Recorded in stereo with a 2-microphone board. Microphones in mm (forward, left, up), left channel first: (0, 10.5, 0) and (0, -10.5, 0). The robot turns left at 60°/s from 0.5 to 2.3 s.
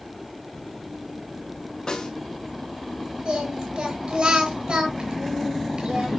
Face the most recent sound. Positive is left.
turn(degrees=-60)  # may be behind; listen again after turning